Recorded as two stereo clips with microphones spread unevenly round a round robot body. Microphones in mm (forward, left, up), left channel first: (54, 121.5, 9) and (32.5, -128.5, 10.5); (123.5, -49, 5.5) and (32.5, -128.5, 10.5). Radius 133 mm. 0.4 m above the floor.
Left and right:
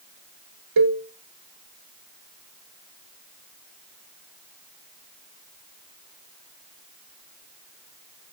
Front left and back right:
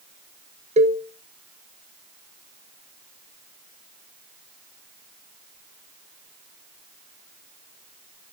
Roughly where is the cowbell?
Right.